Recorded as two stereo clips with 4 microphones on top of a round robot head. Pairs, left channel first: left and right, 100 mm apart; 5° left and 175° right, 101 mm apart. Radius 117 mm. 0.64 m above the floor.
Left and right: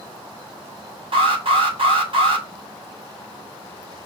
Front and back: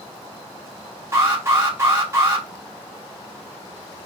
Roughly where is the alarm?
Right.